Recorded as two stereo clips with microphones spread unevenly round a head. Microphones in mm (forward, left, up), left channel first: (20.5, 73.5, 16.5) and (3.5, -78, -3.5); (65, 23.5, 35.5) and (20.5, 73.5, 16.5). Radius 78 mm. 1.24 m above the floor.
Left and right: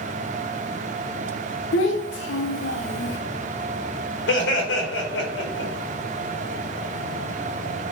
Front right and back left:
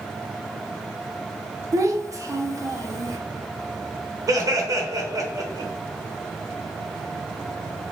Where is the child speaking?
90° left, 0.9 m.